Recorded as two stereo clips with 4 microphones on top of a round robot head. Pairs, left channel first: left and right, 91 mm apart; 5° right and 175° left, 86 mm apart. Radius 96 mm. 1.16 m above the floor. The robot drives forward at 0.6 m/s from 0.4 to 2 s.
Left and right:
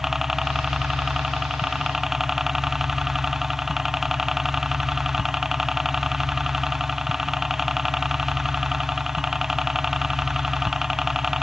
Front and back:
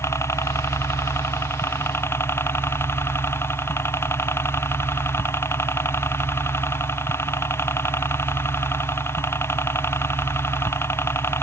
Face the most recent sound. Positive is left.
turn(degrees=-5)